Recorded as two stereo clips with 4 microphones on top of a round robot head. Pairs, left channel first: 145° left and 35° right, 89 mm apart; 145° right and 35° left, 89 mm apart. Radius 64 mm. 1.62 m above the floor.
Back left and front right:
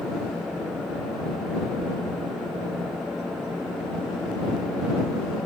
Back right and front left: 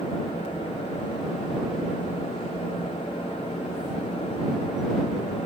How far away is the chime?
I don't hear a chime.